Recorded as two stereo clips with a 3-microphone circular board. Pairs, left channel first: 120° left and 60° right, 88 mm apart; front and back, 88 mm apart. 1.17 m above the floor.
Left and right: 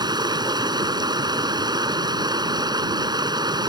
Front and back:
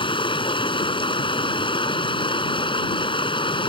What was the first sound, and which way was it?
Running water, 20° right.